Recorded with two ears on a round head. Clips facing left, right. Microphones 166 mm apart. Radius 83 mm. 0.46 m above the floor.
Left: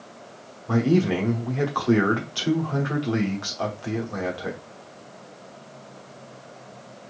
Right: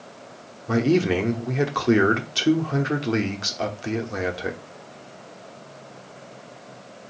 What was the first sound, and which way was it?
A man speaking, 25° right (ahead or behind).